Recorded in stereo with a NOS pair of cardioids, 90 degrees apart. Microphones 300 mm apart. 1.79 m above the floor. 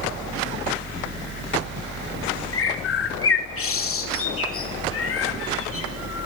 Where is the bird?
45° left, 3 m.